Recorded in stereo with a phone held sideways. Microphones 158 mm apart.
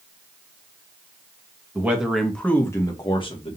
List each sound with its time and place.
1.8 s a man speaking: 10° right (ahead or behind), 1.1 m; by 3.6 s 40° left (ahead or behind), 1.2 m